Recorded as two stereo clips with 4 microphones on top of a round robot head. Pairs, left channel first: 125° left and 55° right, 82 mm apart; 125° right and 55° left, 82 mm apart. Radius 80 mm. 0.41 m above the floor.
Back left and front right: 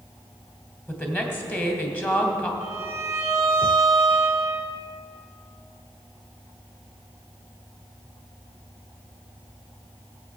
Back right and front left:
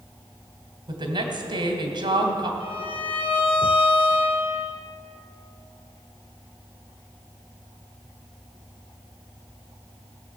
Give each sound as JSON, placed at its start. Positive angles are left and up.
{"t": 0.9, "sound": "a woman speaking", "azimuth_deg": 60, "distance_m": 2.5}
{"t": 2.6, "sound": "a violin", "azimuth_deg": -110, "distance_m": 1.2}